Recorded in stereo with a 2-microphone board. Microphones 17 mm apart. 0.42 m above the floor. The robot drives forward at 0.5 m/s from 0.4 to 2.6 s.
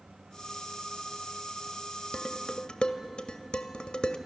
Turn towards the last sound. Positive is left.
turn(degrees=60)  # may be behind; listen again after turning